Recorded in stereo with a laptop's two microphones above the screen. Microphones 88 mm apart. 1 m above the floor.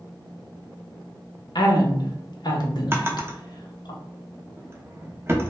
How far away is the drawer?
About 0.5 m.